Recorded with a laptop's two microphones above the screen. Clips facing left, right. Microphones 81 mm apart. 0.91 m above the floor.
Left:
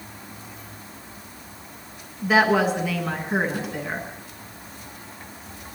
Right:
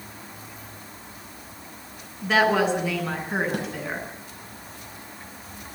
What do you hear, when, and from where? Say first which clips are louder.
2.2 s a woman speaking: left 2 dB; 5° left (ahead or behind), 9.5 m
3.5 s a snare drum: right 1 dB; 65° right (ahead or behind), 5.5 m